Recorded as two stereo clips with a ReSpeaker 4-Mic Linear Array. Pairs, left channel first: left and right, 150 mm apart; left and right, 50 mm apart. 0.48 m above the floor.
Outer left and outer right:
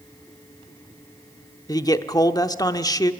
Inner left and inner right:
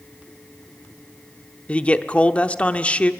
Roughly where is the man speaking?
Left.